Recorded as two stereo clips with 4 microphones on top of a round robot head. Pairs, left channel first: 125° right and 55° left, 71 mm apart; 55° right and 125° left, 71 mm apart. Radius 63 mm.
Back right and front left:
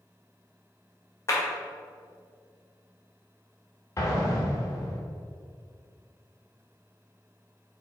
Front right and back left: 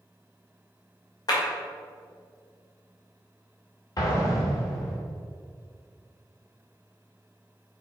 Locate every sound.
1.3 s a clap: 75° right, 2 m
4.0 s an explosion: 80° right, 2.5 m